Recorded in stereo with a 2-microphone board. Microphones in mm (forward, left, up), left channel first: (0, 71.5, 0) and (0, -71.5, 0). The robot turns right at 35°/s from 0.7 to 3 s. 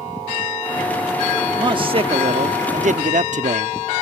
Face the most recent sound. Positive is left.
turn(degrees=-95)